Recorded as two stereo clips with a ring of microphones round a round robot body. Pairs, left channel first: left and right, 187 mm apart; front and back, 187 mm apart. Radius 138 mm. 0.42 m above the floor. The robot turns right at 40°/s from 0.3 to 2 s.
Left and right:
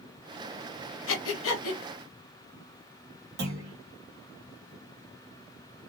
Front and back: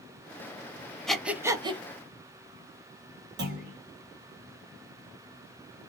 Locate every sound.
1.1 s breathing: 85° left, 0.6 m; by 1.8 s 115° left, 0.6 m
3.4 s a clunk: 135° right, 0.8 m